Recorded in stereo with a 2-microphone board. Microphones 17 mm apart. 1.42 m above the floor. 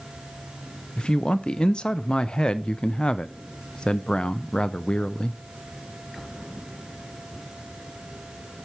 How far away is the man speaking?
About 0.6 m.